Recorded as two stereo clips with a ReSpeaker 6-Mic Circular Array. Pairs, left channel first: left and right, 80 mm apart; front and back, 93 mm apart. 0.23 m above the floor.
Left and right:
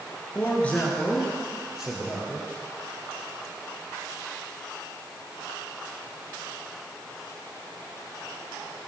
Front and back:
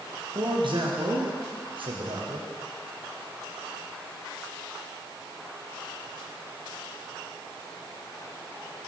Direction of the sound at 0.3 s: 155° left.